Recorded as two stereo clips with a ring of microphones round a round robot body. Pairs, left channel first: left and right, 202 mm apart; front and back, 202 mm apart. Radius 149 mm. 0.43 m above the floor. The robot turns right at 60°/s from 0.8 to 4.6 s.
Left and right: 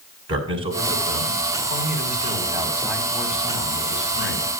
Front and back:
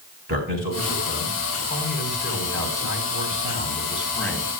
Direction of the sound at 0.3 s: 125° right.